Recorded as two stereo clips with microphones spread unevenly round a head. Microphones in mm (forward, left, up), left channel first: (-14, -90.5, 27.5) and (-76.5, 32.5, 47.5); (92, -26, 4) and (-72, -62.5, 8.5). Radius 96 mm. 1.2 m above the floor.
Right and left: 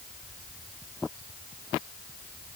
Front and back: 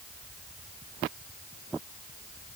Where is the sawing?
I don't hear sawing.